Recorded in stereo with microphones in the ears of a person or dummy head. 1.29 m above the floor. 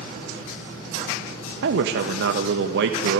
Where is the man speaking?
60° right (ahead or behind), 1.4 m.